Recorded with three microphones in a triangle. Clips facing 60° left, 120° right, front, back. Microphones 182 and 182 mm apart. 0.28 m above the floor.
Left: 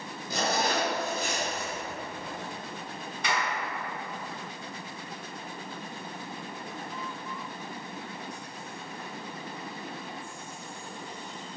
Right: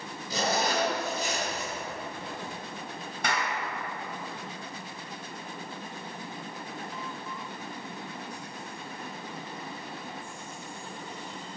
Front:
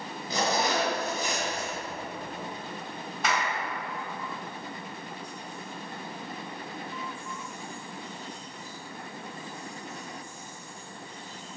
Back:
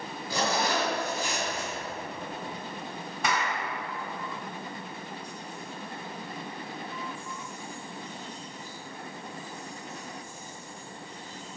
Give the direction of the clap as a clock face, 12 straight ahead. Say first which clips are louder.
Even, even; 3 o'clock.